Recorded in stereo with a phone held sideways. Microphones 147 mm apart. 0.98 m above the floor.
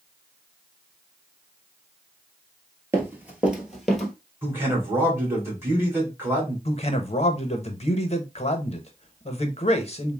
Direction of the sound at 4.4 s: 15° right (ahead or behind).